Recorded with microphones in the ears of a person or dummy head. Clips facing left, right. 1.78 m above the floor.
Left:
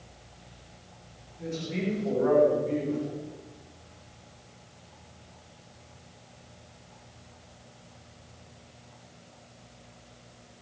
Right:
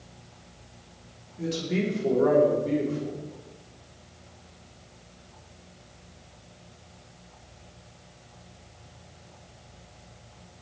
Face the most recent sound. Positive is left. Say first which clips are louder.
# right 5 dB
turn(degrees=-75)  # may be behind; listen again after turning